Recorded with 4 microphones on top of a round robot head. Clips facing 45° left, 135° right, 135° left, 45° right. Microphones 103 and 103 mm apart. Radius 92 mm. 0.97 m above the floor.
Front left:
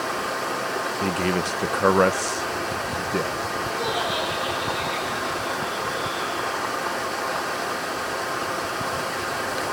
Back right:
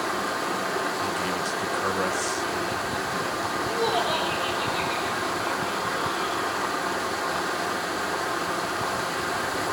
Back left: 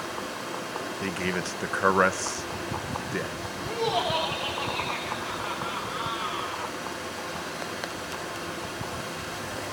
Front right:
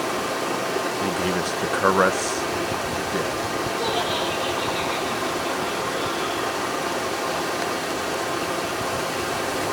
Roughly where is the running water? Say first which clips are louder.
Front left 1 dB, front right 9 dB; ahead right.